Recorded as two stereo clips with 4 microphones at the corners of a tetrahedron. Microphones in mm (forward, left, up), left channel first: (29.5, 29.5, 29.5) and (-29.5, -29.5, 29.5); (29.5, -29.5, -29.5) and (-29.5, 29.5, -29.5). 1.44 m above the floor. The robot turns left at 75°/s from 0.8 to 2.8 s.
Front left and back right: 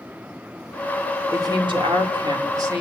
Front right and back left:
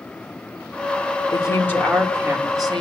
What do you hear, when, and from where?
1.3 s a woman speaking: 80° right, 4.5 m; by 2.8 s 165° left, 4.5 m